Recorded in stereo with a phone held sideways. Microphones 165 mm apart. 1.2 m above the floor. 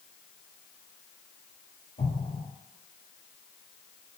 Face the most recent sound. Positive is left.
turn(degrees=70)  # may be behind; listen again after turning